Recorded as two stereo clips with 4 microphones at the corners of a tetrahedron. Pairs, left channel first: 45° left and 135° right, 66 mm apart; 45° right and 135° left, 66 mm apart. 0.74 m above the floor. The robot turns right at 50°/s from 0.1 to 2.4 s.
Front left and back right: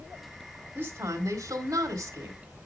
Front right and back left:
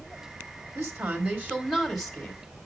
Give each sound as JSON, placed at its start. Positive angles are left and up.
{"t": 0.8, "sound": "a woman speaking", "azimuth_deg": 165, "distance_m": 2.5}